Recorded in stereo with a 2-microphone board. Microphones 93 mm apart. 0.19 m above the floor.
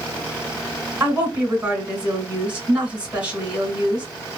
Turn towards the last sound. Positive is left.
turn(degrees=-15)  # may be behind; listen again after turning